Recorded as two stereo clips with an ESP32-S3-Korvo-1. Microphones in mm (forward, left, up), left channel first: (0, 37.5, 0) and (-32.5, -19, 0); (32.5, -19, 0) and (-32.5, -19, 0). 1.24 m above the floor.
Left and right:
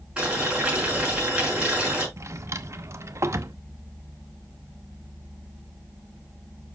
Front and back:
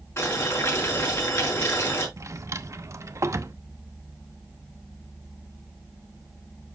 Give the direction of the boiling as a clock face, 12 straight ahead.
2 o'clock.